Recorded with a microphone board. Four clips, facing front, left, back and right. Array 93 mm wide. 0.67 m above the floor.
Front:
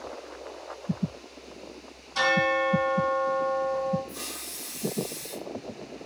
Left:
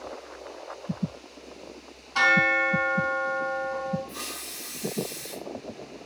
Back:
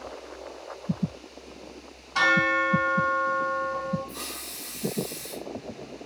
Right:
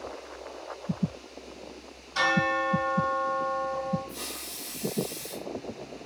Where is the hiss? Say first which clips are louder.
Left 1 dB, back 1 dB; 110° left, 0.7 m.